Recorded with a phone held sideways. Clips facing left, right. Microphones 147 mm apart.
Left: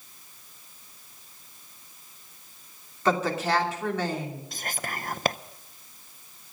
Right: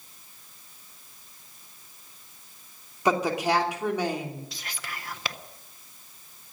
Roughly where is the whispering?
Left.